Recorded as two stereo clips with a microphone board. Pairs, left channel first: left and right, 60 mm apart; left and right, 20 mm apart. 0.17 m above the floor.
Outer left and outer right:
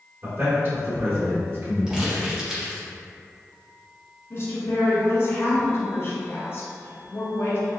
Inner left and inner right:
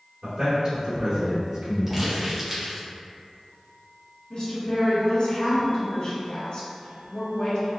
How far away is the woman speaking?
About 1.5 m.